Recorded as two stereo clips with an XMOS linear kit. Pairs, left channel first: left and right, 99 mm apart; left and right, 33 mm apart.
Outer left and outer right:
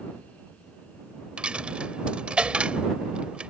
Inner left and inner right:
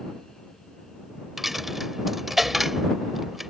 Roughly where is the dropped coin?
Centre.